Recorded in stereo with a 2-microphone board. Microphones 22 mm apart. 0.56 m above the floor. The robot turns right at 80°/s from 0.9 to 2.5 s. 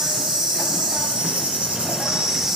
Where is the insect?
140° right, 1.4 m; by 2.6 s 10° right, 1.4 m.